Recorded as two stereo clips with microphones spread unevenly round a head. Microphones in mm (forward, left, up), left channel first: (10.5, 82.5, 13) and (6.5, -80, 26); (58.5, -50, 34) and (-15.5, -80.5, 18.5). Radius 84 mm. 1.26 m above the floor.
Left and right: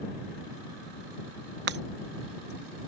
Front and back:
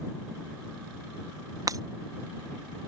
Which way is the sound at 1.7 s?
110° right.